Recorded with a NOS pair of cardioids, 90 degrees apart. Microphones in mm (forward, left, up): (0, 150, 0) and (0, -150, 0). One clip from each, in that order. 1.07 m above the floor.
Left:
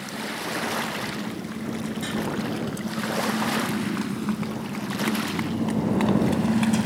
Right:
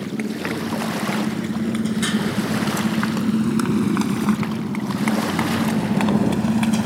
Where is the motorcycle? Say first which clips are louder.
Right 4 dB; 65° right; by 6.9 s 10° right.